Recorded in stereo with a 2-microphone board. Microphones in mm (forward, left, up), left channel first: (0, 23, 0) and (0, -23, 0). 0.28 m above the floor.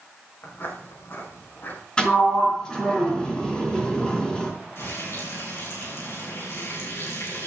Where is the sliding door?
20° left (ahead or behind), 4.5 m.